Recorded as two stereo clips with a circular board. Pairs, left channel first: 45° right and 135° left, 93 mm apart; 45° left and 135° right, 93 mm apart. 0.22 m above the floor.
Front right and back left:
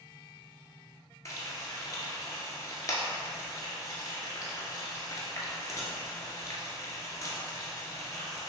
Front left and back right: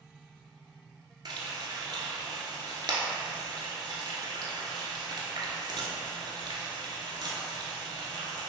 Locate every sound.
1.2 s frying: 95° right, 1.0 m